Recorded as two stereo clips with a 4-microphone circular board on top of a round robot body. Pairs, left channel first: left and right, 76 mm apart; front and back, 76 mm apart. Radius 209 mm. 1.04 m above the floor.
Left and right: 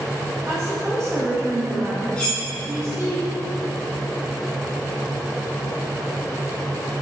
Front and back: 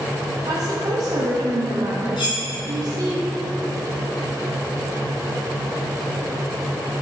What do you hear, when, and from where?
0.5 s a woman speaking: 165° right, 1.2 m
2.2 s cutlery clinking: 15° left, 1.6 m